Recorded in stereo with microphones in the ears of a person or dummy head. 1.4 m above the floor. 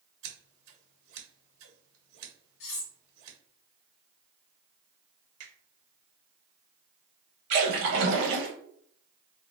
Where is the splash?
60° right (ahead or behind), 1.1 m.